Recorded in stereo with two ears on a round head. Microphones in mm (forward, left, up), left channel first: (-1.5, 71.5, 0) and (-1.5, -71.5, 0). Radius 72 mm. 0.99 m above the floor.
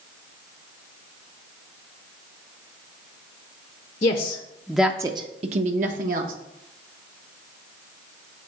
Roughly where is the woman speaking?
Left.